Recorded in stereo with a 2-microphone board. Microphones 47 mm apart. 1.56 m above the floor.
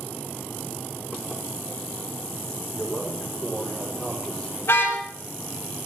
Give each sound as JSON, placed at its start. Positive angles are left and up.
{"t": 2.7, "sound": "a man speaking", "side_deg": 20, "distance_m": 5.0}
{"t": 4.6, "sound": "a car horn", "side_deg": 65, "distance_m": 4.0}